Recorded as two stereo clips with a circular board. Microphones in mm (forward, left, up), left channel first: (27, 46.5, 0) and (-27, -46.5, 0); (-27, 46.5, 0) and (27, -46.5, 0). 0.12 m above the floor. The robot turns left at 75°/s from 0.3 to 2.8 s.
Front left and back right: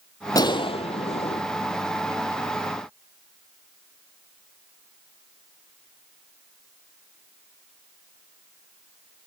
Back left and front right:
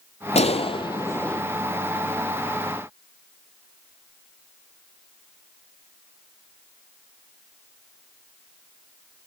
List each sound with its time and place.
0.3 s a gunshot: 115° left, 0.7 m; by 1.4 s 35° left, 0.7 m